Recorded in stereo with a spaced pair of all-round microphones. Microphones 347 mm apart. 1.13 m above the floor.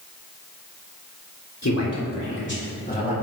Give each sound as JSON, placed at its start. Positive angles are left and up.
{"t": 1.6, "sound": "a man speaking", "side_deg": 50, "distance_m": 3.0}